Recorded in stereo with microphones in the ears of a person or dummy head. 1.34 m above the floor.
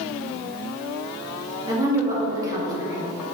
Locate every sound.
1.7 s a woman speaking: 15° right (ahead or behind), 2.5 m